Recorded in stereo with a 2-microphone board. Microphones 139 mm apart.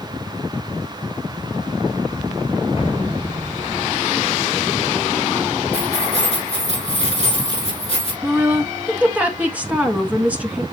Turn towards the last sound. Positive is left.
turn(degrees=-10)  # may be behind; listen again after turning